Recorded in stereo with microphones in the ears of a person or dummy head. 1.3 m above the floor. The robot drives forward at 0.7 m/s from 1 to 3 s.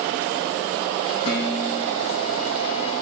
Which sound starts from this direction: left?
Dishes clattering, at 1.2 s.